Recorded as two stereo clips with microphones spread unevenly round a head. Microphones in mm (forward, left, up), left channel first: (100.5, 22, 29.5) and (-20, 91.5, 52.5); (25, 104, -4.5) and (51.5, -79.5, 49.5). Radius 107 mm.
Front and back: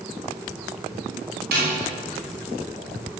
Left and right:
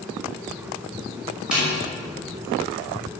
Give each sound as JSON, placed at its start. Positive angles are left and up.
{"t": 1.5, "sound": "a snare drum", "azimuth_deg": -165, "distance_m": 6.0}